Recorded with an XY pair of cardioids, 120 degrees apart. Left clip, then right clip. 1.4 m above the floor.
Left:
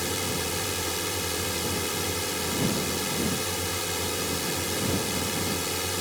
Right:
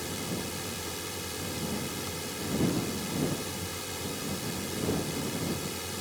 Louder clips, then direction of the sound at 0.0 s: Left 7 dB; 45° left.